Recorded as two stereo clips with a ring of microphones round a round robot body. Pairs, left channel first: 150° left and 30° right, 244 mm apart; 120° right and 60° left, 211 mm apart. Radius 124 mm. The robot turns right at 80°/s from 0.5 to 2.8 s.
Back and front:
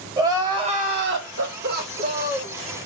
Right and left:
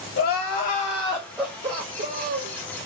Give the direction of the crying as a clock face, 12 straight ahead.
3 o'clock.